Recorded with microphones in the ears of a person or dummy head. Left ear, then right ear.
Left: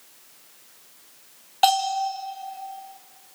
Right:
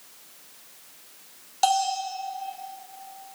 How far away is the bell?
About 1.4 m.